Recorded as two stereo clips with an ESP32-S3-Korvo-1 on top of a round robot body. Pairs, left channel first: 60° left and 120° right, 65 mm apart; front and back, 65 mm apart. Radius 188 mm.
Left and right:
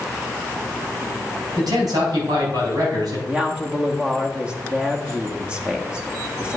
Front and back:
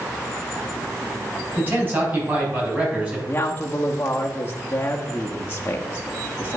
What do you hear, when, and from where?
1.6 s a man speaking: 125° right, 4.5 m; by 3.2 s 110° right, 5.5 m
3.3 s a woman speaking: 50° right, 1.2 m